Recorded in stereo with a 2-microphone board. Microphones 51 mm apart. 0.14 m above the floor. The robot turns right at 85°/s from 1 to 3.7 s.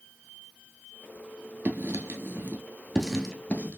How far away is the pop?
No pop in this recording.